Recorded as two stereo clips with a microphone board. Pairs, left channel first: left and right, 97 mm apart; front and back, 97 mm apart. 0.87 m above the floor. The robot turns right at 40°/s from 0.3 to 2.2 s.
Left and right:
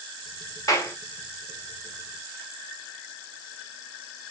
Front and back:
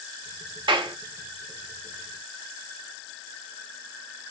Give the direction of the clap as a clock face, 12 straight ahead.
7 o'clock.